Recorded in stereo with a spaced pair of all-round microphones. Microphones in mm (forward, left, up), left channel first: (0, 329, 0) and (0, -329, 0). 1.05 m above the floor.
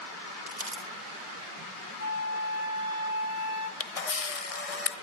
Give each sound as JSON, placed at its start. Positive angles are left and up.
{"t": 0.5, "sound": "crumpling", "side_deg": -35, "distance_m": 4.0}
{"t": 2.0, "sound": "a flute", "side_deg": -50, "distance_m": 2.0}
{"t": 3.8, "sound": "a camera shutter", "side_deg": 65, "distance_m": 1.1}